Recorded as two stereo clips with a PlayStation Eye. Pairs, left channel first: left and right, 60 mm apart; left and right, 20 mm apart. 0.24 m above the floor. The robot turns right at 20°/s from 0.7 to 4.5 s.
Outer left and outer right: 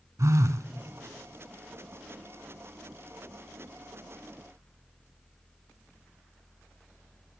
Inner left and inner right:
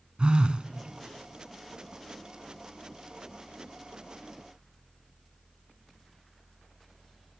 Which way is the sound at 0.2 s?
70° right (ahead or behind).